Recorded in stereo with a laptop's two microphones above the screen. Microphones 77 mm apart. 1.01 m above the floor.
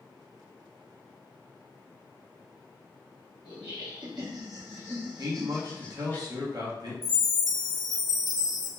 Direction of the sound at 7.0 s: 5° right (ahead or behind).